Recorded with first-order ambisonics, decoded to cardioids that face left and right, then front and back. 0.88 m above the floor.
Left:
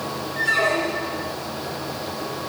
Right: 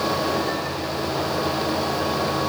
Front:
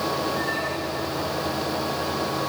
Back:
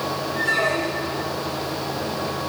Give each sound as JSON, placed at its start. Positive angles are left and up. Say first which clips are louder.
{"t": 0.4, "sound": "a squeak", "louder": "left 5 dB, back 5 dB", "azimuth_deg": 120, "distance_m": 1.0}